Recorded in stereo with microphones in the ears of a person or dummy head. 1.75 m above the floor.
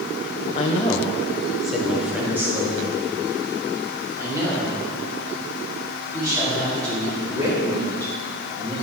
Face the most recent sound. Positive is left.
turn(degrees=-25)  # may be behind; listen again after turning